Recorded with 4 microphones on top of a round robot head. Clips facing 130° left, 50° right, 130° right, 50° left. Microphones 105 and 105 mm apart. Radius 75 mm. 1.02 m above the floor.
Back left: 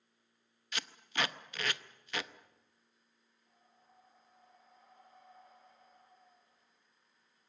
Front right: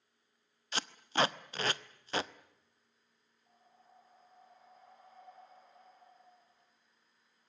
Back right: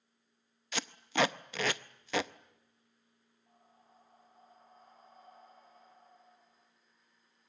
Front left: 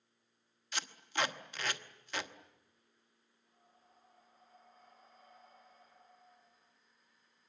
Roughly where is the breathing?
Right.